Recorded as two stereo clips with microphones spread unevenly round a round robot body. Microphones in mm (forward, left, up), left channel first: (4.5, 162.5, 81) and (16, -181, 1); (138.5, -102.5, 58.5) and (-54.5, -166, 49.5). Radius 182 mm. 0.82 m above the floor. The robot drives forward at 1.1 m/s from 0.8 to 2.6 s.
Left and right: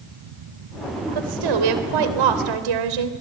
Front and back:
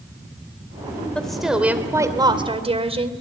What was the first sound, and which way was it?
A woman speaking, 70° right.